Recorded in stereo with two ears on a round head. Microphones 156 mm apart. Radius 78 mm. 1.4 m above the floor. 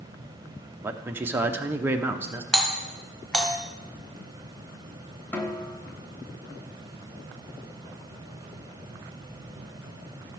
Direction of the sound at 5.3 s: 10° left (ahead or behind).